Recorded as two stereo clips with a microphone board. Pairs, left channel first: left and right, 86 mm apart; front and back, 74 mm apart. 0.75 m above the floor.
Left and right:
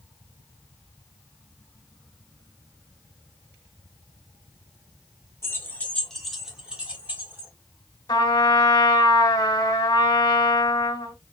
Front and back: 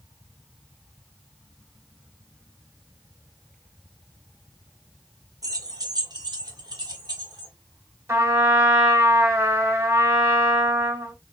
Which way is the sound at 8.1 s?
130° left.